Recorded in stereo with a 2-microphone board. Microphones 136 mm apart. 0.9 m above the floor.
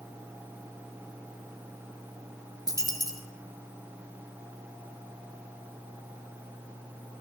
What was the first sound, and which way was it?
A dropped coin, 25° left (ahead or behind).